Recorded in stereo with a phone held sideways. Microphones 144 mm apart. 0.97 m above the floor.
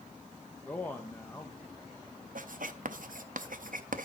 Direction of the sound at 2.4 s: 70° right (ahead or behind).